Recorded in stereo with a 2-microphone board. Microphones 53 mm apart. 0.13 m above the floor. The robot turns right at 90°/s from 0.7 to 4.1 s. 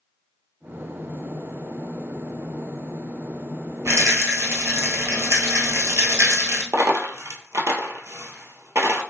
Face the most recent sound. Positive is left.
turn(degrees=-65)  # may be behind; listen again after turning